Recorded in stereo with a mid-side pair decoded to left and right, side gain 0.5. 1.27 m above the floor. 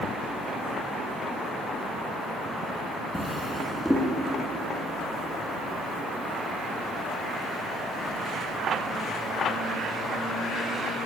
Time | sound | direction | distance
3.1 | a drawer | 10° left | 1.3 m